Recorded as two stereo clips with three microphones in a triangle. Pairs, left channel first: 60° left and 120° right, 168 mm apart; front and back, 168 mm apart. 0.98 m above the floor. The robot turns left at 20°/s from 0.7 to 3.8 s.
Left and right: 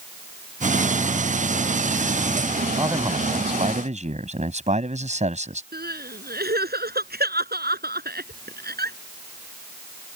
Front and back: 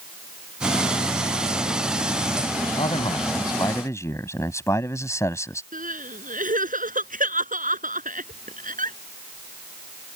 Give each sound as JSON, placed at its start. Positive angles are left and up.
{"t": 2.8, "sound": "a man speaking", "azimuth_deg": -50}
{"t": 5.7, "sound": "crying", "azimuth_deg": -140}